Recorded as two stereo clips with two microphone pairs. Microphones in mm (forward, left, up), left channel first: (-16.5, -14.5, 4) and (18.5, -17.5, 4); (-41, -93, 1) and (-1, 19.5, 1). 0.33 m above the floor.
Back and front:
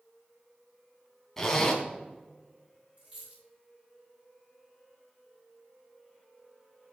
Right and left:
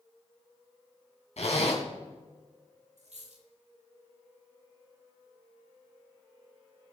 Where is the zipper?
110° right, 3 m.